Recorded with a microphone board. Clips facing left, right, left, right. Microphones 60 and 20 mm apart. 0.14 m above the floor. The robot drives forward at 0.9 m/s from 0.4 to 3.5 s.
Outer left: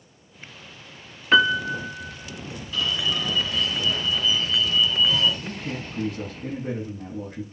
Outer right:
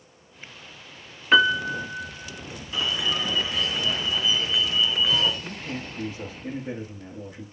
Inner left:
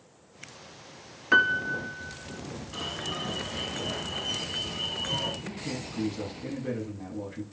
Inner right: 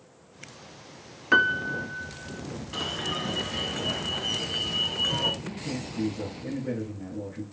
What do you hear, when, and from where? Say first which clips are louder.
1.3 s a piano: even, even; centre (ahead or behind), 0.6 m
2.7 s an alarm: even, inner right 4 dB; 20° right (ahead or behind), 1.2 m; by 5.3 s 15° right (ahead or behind), 1.7 m
5.4 s a man speaking: outer left 2 dB, inner right 1 dB; 55° left (ahead or behind), 6 m